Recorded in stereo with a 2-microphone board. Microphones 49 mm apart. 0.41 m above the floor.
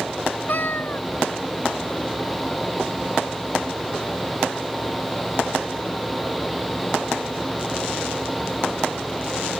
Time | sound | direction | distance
0.5 | a cat meowing | 45° left (ahead or behind) | ?